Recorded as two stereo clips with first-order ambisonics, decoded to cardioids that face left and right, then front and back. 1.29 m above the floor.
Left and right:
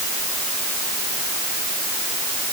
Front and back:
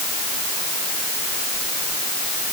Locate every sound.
Only background noise.